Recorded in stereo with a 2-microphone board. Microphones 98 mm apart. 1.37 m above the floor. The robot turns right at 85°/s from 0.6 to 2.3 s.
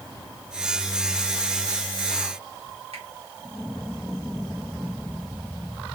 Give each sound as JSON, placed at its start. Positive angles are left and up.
{"t": 2.9, "sound": "a finger snap", "side_deg": -75, "distance_m": 2.0}